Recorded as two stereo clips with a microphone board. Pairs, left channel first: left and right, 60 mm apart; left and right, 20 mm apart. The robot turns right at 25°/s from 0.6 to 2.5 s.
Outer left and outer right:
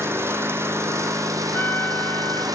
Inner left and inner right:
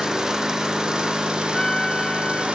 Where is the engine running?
140° right, 1.8 m; by 2.6 s 90° right, 1.8 m.